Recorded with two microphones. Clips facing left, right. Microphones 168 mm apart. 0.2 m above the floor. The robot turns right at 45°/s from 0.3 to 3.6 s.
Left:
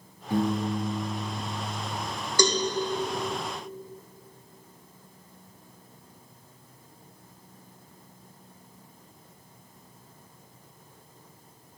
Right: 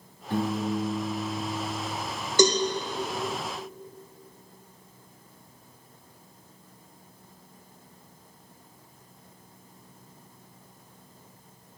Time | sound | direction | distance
0.3 | a piano | 165° left | 3 m
2.4 | a cowbell | 20° right (ahead or behind) | 2.0 m